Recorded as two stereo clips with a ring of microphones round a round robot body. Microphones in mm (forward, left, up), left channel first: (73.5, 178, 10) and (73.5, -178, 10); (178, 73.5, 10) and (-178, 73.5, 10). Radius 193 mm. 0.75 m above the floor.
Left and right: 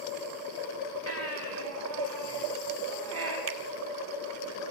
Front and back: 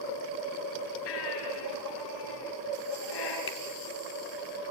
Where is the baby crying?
40° right, 6 m.